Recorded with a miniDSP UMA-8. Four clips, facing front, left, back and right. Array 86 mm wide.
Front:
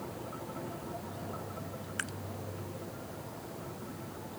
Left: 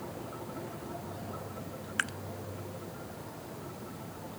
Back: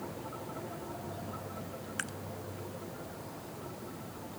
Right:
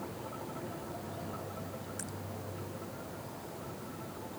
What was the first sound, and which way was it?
Dripping, 90° left.